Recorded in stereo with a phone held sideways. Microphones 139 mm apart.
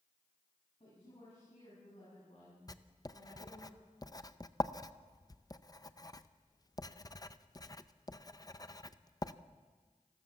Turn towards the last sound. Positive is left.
turn(degrees=25)  # may be behind; listen again after turning